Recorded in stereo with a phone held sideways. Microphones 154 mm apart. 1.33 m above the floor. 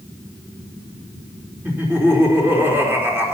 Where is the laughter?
15° right (ahead or behind), 4.5 m.